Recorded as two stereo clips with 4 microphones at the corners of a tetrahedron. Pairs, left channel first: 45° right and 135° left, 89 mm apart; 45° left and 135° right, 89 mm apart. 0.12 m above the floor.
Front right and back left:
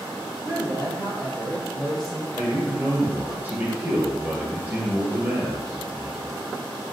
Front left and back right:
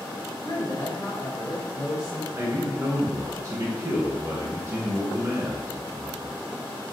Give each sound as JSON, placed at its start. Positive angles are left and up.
{"t": 0.4, "sound": "a woman speaking", "azimuth_deg": 5, "distance_m": 1.6}
{"t": 2.3, "sound": "a man speaking", "azimuth_deg": -165, "distance_m": 1.3}